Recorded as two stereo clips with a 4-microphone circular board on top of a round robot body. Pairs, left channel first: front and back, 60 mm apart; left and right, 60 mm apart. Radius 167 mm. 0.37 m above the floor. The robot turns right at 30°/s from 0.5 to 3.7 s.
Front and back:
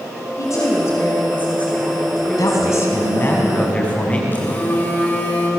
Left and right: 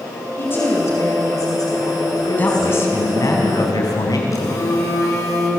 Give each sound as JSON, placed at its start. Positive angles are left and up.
{"t": 0.4, "sound": "a woman speaking", "azimuth_deg": 35, "distance_m": 5.0}
{"t": 2.4, "sound": "a man speaking", "azimuth_deg": 30, "distance_m": 5.5}
{"t": 4.3, "sound": "a phone buzzing", "azimuth_deg": 60, "distance_m": 6.5}